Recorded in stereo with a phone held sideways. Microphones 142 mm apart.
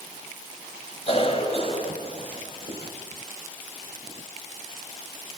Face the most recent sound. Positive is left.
turn(degrees=40)  # may be behind; listen again after turning